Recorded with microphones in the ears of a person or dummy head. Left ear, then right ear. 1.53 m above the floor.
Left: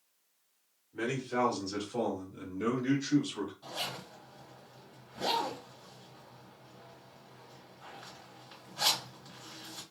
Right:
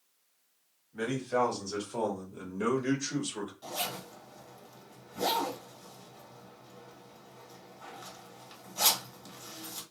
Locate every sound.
0.9 s a man speaking: 10° right (ahead or behind), 1.3 m; by 3.5 s 70° right (ahead or behind), 1.1 m
3.6 s a zipper: 80° right, 1.5 m